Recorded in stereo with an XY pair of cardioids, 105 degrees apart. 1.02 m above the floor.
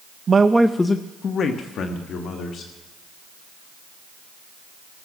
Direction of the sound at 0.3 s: 40° right.